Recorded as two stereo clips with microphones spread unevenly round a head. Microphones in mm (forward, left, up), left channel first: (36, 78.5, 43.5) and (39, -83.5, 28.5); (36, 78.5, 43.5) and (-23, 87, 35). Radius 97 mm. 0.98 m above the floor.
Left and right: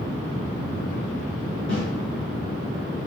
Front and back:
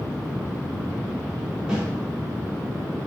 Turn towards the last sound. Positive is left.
turn(degrees=95)